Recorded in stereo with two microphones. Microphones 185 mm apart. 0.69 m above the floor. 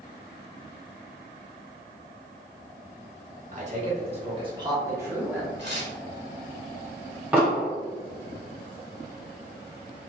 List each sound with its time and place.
3.5 s a man speaking: 45° right (ahead or behind), 1.8 m; by 5.5 s 5° right (ahead or behind), 1.4 m
5.6 s tearing paper: 70° right (ahead or behind), 1.6 m
7.3 s an explosion: 10° right (ahead or behind), 2.0 m